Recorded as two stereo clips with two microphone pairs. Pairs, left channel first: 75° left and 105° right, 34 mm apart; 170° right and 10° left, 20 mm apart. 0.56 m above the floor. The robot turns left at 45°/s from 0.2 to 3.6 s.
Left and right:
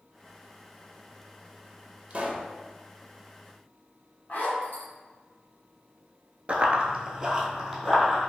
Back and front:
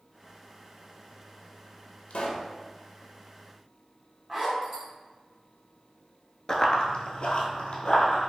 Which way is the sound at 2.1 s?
155° right.